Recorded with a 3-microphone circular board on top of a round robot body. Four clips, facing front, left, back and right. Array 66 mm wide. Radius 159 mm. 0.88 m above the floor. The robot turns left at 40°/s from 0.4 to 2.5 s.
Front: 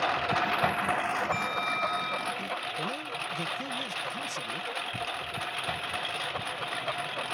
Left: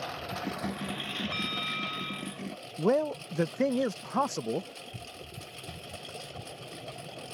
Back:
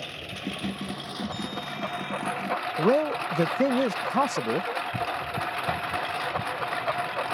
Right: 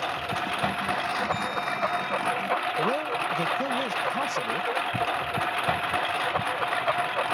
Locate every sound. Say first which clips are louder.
0.0 s a lawn mower: right 7 dB, front 9 dB; 30° right; by 7.3 s 110° right
1.3 s a bell: right 6 dB, front 4 dB; 20° left; by 2.4 s 20° right
2.8 s a man speaking: right 1 dB, back 12 dB; 160° left